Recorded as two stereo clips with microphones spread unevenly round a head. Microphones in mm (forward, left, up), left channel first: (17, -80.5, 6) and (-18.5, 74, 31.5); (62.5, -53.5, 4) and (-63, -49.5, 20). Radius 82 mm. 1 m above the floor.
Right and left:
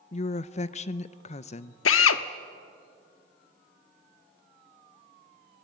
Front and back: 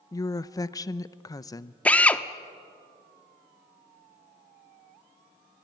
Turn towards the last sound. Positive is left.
turn(degrees=-85)